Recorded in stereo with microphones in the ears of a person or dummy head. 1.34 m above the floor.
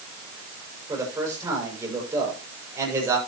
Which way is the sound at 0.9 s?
15° right (ahead or behind).